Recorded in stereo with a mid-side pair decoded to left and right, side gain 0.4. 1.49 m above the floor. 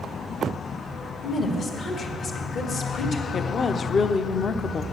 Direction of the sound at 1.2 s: 65° left.